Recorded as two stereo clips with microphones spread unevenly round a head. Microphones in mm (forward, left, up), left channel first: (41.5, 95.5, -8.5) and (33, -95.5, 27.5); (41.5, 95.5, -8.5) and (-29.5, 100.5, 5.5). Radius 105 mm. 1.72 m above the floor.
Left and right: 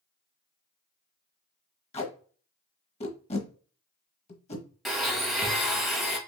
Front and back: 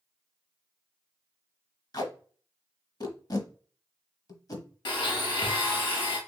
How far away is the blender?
About 1.1 m.